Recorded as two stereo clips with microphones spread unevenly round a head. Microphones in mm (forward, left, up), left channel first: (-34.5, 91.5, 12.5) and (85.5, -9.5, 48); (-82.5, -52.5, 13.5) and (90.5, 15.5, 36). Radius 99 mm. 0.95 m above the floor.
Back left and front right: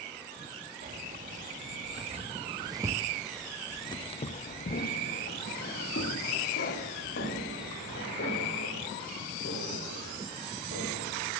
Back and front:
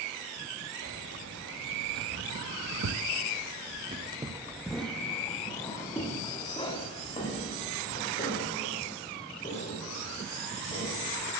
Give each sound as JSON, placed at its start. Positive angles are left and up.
{"t": 0.8, "sound": "keys jangling", "azimuth_deg": -5, "distance_m": 1.6}